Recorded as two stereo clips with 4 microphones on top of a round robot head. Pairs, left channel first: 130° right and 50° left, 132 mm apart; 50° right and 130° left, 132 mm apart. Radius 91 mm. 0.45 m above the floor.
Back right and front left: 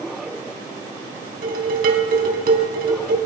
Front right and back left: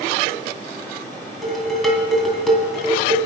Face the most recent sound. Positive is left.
turn(degrees=40)